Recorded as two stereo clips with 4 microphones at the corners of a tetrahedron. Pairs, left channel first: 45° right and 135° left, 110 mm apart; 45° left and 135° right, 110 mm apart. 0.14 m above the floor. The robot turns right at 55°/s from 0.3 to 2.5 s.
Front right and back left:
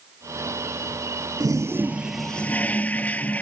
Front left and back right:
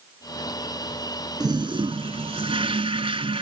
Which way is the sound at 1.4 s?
Straight behind.